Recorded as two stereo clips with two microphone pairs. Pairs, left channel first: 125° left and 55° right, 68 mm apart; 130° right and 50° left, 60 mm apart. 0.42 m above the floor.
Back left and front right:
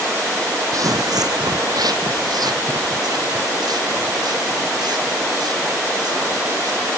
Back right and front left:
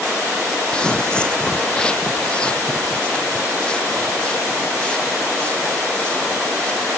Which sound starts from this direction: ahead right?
Footsteps, at 0.7 s.